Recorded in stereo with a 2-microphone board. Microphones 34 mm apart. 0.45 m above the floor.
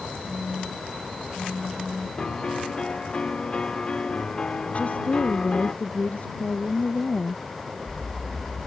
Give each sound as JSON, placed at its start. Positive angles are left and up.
{"t": 0.3, "sound": "a phone buzzing", "side_deg": 5}
{"t": 2.2, "sound": "a piano", "side_deg": 30}
{"t": 4.7, "sound": "a woman speaking", "side_deg": 40}